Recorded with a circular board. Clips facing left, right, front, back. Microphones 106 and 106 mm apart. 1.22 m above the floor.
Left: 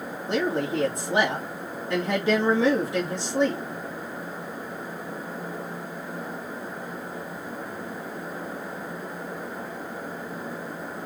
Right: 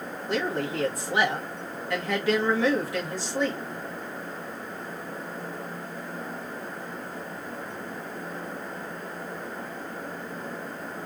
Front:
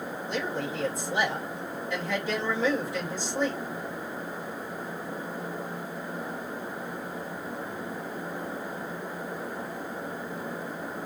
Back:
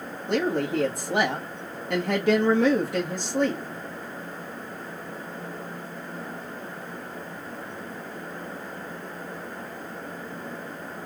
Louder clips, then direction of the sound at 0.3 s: Left 3 dB, back 8 dB; 155° left.